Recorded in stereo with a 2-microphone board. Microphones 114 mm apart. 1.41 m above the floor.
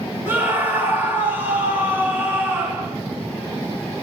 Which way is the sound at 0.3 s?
20° right (ahead or behind).